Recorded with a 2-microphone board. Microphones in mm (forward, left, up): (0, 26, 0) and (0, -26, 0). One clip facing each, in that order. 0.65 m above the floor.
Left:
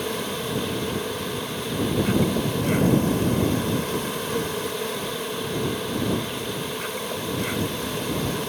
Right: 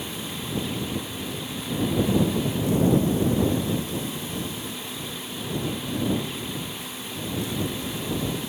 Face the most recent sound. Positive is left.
turn(degrees=70)  # may be behind; listen again after turning